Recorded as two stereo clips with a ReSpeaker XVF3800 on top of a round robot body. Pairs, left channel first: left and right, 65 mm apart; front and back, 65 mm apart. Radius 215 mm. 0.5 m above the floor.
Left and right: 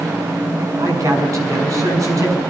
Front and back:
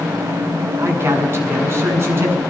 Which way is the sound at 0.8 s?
130° right.